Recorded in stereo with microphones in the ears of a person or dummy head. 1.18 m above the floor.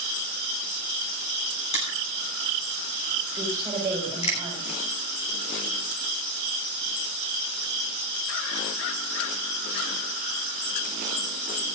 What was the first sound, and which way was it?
Crushing, 35° left (ahead or behind).